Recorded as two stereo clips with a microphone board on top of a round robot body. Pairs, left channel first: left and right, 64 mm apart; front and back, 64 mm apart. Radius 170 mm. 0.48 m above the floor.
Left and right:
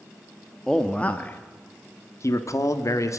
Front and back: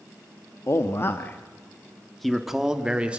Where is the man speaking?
10° left, 1.4 m; by 3.2 s 110° left, 1.8 m.